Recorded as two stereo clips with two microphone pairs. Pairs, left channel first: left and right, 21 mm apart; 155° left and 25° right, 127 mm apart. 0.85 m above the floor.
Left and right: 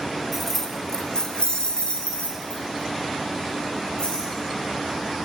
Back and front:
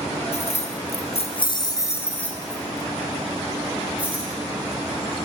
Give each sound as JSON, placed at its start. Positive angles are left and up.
{"t": 0.3, "sound": "keys jangling", "azimuth_deg": 180, "distance_m": 0.8}